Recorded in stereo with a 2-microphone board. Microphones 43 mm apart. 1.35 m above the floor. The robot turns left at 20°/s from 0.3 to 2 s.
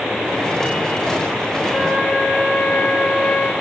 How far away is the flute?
About 7 m.